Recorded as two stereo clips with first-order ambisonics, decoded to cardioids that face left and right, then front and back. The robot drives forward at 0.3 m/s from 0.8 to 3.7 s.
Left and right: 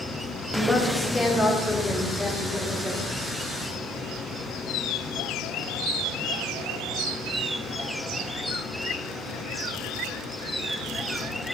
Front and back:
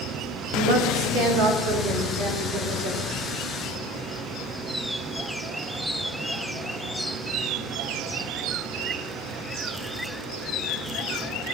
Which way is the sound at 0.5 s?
175° left.